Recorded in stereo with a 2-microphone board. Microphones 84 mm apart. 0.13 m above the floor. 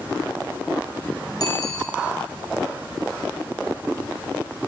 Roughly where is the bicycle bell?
Left.